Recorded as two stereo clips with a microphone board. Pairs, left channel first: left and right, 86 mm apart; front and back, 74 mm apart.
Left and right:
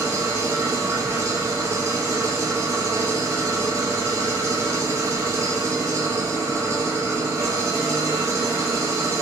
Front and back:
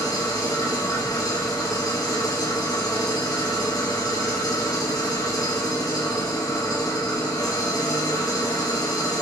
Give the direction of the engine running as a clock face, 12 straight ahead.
1 o'clock.